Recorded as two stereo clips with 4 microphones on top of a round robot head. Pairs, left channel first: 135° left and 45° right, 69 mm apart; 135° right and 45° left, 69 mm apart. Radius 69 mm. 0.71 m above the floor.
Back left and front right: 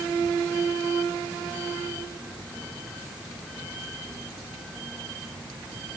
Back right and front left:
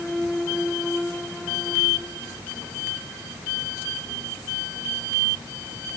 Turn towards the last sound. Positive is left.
No sound to turn to.